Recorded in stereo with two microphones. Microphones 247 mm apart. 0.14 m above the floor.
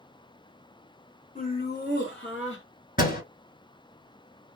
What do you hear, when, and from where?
1.4 s laughter: 30° left (ahead or behind), 1.3 m; by 2.6 s 60° left (ahead or behind), 2 m
3.0 s a door slam: 35° left (ahead or behind), 1.4 m